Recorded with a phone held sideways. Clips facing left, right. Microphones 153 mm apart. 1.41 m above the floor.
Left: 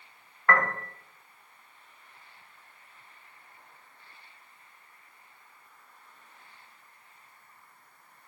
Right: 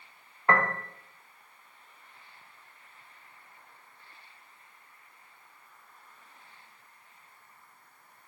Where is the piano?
20° right (ahead or behind), 0.8 m.